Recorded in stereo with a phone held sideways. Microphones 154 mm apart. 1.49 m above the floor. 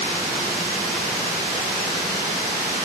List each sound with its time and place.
Only background noise.